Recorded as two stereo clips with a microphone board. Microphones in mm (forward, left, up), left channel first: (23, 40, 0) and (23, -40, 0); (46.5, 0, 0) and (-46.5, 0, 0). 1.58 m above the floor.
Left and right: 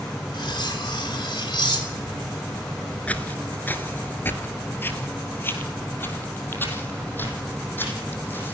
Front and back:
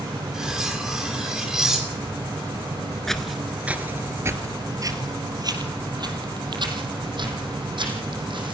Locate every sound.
0.3 s cutlery clinking: 95° left, 3 m
3.1 s footsteps: 75° left, 1.6 m; by 8.5 s 155° left, 5.5 m